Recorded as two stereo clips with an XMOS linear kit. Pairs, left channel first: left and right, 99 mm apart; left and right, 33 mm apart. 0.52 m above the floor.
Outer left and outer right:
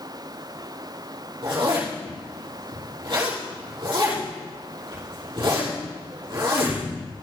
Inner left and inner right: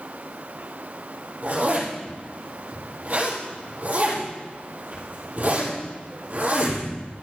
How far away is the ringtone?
No ringtone in this recording.